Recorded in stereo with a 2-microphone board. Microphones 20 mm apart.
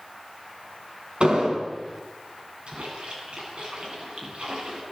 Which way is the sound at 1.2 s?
70° right (ahead or behind).